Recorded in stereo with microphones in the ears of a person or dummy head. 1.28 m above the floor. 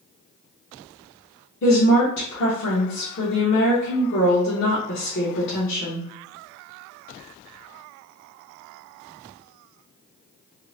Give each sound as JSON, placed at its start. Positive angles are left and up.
{"t": 1.6, "sound": "a woman speaking", "side_deg": 55, "distance_m": 1.0}